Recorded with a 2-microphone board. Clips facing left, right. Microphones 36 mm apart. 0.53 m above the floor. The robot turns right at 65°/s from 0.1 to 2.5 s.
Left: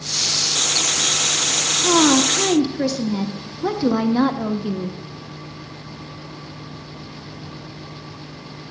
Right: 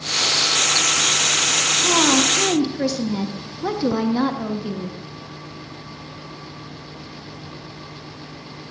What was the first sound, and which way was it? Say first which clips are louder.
A woman speaking: left 3 dB; 25° left (ahead or behind).